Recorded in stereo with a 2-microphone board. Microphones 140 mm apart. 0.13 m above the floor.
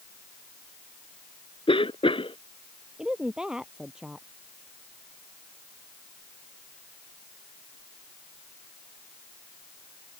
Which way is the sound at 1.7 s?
40° left (ahead or behind).